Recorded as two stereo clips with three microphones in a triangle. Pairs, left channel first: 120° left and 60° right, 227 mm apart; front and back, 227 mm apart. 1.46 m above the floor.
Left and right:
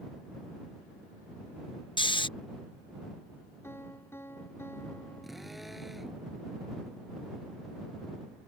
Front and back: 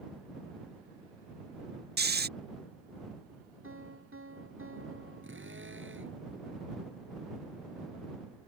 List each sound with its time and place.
2.0 s snoring: straight behind
3.6 s a piano: 160° right
5.2 s a drill: 150° right